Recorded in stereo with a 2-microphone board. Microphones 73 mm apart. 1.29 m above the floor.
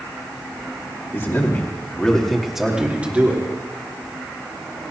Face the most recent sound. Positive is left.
turn(degrees=-25)  # may be behind; listen again after turning